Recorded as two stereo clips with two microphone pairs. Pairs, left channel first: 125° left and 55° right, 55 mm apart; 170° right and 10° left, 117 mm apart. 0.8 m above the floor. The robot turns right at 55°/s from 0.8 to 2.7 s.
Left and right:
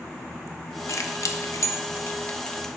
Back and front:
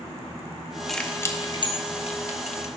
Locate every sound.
0.9 s keys jangling: 100° left, 0.6 m; by 2.7 s 160° right, 0.6 m